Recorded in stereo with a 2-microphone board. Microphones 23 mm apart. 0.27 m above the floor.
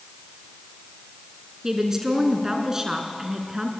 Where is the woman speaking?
20° right (ahead or behind), 3 m.